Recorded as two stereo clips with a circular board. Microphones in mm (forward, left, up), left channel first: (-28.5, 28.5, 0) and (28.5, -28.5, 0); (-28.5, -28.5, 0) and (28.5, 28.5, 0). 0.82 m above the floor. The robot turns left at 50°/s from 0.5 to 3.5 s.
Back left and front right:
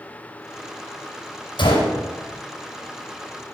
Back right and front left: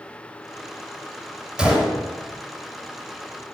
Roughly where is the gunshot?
Behind left.